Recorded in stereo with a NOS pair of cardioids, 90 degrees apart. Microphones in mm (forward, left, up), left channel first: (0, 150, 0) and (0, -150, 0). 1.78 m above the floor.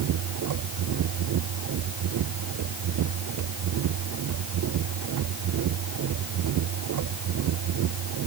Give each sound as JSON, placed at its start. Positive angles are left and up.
{"t": 0.0, "sound": "a machine running", "azimuth_deg": -70}